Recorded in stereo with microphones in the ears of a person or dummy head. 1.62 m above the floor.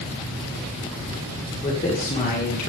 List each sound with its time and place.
1.6 s a man speaking: 30° left (ahead or behind), 2.5 m; by 2.7 s 55° left (ahead or behind), 2.5 m